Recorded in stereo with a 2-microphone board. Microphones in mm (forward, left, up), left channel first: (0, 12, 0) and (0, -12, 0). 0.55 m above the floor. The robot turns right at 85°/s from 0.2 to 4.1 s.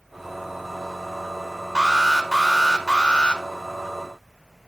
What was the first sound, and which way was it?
An alarm, 40° right.